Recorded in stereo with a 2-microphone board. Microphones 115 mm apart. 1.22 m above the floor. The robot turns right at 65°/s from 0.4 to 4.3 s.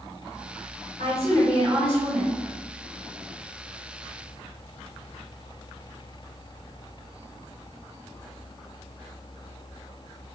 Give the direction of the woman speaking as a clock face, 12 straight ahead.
8 o'clock.